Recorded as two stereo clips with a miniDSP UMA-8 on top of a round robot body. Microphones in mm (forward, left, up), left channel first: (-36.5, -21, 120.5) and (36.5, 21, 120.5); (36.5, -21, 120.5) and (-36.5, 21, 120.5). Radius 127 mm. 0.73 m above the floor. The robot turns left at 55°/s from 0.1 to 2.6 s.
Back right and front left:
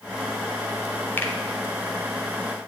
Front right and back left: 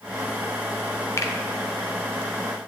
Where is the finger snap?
85° right, 2 m; by 1.3 s 95° right, 2 m.